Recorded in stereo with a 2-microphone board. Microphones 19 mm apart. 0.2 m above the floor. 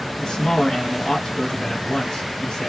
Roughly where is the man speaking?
Left.